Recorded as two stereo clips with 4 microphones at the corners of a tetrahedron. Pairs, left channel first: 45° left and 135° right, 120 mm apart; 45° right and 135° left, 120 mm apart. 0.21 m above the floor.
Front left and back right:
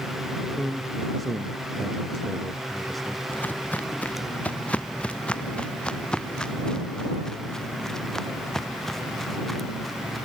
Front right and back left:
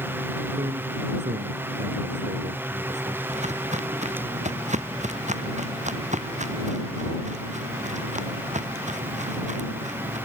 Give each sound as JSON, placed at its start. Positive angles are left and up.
{"t": 0.6, "sound": "a man speaking", "azimuth_deg": 135}
{"t": 3.3, "sound": "footsteps", "azimuth_deg": 120}